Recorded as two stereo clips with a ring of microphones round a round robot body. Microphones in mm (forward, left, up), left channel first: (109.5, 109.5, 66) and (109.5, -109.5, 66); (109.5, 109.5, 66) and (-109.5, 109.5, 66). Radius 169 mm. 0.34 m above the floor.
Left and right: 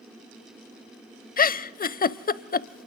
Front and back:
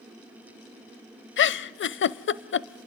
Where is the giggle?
35° left, 0.6 m.